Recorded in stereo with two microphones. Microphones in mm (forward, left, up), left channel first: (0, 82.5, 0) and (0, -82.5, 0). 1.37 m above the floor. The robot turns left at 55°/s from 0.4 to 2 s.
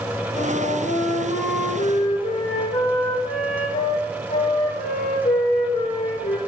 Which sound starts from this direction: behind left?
A flute, at 0.3 s.